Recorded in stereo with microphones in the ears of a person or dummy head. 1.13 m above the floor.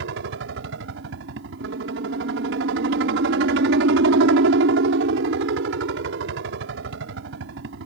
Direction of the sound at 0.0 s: 65° right (ahead or behind).